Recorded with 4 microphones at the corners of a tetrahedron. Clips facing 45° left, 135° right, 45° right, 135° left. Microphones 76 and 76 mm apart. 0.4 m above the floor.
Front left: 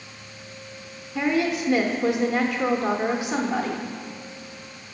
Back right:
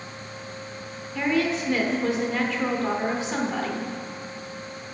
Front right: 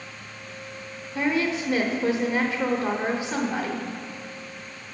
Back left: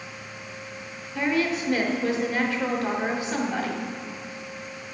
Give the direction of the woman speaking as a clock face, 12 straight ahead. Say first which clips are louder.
Front left 1 dB, even; 12 o'clock.